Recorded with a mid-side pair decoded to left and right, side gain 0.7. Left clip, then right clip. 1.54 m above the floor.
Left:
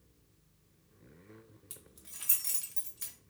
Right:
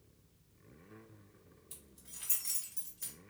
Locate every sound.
1.7 s keys jangling: 65° left, 1.3 m